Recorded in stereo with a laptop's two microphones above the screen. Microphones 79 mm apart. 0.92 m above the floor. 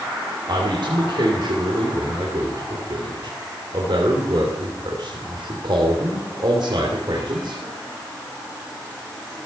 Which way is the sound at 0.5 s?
65° right (ahead or behind).